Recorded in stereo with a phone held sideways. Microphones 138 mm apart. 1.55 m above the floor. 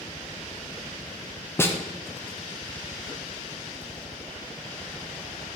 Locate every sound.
1.6 s a snare drum: 20° left (ahead or behind), 0.6 m